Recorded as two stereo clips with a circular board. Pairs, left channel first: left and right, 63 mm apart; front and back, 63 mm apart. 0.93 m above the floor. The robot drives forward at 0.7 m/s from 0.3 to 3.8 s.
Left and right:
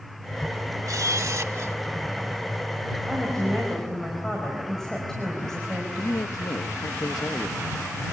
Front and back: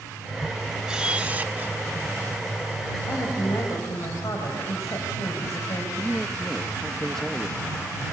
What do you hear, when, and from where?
0.9 s a camera shutter: 100° right, 1.3 m; by 1.8 s 125° right, 1.5 m
3.1 s a woman speaking: 10° left, 5.5 m
6.0 s a man speaking: 80° left, 1.0 m